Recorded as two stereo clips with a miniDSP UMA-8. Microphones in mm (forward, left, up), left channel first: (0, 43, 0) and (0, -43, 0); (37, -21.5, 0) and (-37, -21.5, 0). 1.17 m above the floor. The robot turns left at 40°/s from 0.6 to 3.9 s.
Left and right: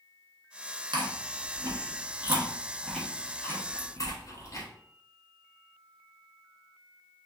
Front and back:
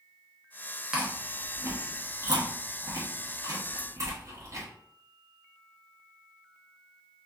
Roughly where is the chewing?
Right.